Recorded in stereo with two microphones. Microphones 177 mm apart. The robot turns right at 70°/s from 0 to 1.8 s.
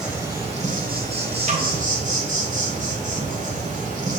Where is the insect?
175° right, 0.9 m; by 4.2 s 50° right, 0.9 m.